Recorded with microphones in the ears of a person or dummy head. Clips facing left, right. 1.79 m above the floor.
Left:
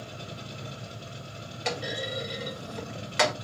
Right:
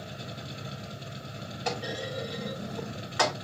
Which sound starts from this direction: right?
A machine running, at 0.0 s.